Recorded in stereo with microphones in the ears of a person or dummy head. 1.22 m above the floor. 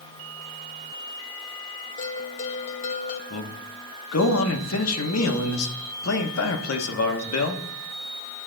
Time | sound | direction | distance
2.0 | a bell | 35° left (ahead or behind) | 0.7 m
3.3 | a man speaking | 85° left | 1.0 m